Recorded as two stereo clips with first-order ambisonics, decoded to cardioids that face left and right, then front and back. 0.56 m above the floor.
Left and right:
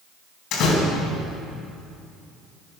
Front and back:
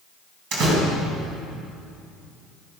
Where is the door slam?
140° left, 3.5 m.